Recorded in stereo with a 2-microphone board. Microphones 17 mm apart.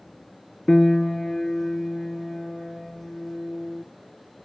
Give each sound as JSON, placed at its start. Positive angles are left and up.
{"t": 0.7, "sound": "a piano", "side_deg": 25, "distance_m": 0.5}